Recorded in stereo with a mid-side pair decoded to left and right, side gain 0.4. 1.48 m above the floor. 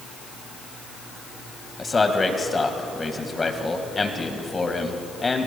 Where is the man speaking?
30° left, 1.8 m.